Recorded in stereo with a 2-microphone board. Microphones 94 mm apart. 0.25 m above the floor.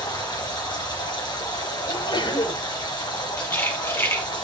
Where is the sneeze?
60° left (ahead or behind), 8.5 m.